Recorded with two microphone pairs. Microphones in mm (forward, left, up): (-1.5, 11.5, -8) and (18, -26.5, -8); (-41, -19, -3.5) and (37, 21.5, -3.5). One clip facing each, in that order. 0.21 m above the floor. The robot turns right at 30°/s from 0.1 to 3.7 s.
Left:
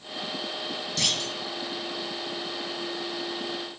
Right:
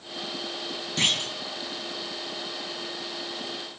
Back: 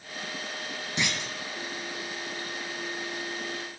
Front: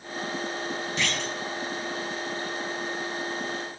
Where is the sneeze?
No sneeze in this recording.